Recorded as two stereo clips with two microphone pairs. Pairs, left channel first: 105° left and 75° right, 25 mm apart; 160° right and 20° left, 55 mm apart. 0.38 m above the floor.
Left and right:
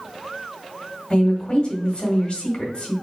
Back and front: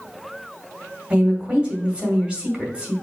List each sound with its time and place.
1.1 s a woman speaking: 85° left, 1.8 m